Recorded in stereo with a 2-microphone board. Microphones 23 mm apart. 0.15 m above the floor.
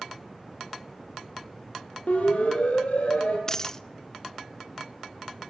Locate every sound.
2.1 s a siren: 70° left (ahead or behind), 6 m; by 3.4 s 60° left (ahead or behind), 6.5 m
3.5 s a dropped coin: 20° left (ahead or behind), 0.6 m